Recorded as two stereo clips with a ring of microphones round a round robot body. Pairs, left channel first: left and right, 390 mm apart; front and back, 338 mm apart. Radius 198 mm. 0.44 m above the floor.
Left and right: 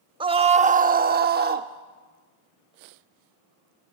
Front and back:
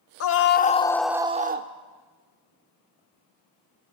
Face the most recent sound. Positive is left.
turn(degrees=-145)